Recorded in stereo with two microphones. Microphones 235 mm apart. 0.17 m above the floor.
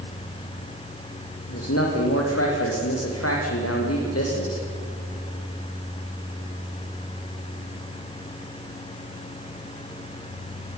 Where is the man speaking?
80° left, 7 m.